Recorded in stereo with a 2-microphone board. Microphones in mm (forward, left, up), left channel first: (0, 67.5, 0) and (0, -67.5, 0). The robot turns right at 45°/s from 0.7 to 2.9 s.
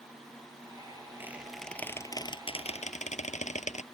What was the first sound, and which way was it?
A squeak, 15° right (ahead or behind).